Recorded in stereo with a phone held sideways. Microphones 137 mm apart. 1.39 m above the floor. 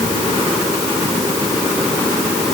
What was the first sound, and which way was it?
Only background noise.